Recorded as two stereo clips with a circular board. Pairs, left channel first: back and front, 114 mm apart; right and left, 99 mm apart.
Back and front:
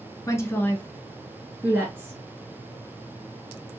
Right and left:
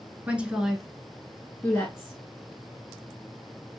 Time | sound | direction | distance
0.3 | a woman speaking | 155° left | 1.3 m